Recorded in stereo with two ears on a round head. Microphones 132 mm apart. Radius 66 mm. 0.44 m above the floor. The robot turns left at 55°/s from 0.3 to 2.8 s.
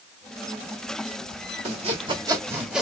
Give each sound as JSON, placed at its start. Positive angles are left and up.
{"t": 1.6, "sound": "sawing", "azimuth_deg": -110, "distance_m": 1.8}